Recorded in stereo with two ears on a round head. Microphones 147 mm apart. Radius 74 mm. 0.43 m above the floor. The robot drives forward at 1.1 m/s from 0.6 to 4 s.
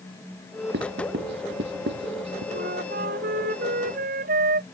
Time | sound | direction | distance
0.7 | writing | 70° right (ahead or behind) | ?
2.5 | a flute | 65° right (ahead or behind) | ?